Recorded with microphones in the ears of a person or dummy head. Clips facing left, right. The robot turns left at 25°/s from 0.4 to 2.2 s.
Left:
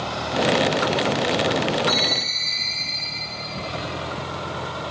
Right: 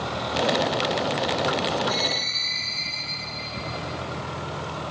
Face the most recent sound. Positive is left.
turn(degrees=65)  # may be behind; listen again after turning